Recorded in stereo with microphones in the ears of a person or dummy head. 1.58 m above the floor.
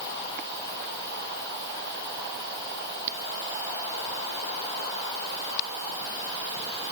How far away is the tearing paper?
I don't hear tearing paper.